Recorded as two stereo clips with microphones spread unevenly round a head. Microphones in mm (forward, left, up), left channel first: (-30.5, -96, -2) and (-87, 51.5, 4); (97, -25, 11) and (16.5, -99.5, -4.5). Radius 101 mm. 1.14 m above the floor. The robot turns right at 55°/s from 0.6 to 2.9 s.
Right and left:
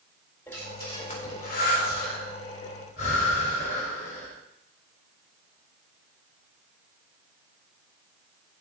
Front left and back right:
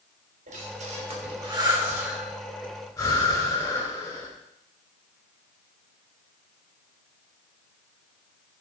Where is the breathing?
145° right, 4 m; by 4.3 s 20° right, 4 m.